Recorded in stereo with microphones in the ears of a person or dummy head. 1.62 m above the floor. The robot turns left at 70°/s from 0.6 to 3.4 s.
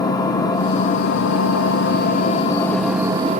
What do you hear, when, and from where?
0.0 s an engine running: 155° left, 0.8 m; by 3.4 s 40° right, 0.8 m